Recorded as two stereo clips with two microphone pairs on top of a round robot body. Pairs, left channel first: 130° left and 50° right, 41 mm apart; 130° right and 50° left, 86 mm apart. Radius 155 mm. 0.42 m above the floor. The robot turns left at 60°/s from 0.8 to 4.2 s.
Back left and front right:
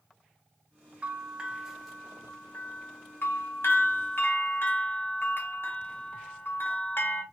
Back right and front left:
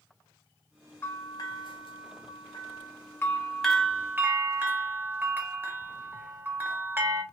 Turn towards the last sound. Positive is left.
turn(degrees=100)